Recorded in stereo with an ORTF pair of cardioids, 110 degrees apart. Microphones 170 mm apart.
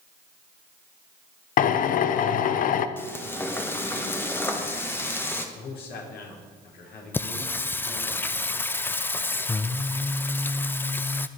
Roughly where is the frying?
Ahead.